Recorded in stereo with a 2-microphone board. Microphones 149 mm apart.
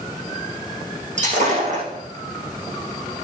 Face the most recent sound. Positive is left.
turn(degrees=-55)  # may be behind; listen again after turning